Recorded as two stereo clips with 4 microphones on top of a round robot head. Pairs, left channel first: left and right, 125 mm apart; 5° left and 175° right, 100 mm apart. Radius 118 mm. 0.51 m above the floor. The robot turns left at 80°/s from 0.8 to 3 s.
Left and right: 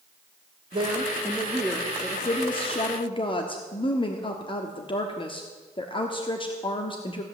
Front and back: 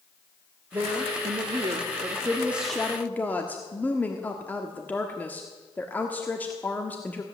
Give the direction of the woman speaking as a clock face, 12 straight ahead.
4 o'clock.